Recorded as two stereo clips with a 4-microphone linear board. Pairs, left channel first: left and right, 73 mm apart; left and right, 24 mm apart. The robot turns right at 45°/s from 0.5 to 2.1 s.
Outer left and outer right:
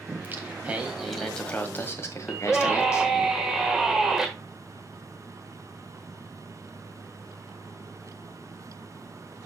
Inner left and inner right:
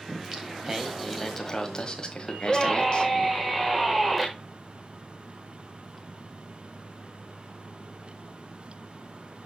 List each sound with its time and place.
0.1 s singing: 30° right, 1.5 m; by 3.3 s 45° left, 1.5 m
2.3 s a scream: 5° right (ahead or behind), 1.2 m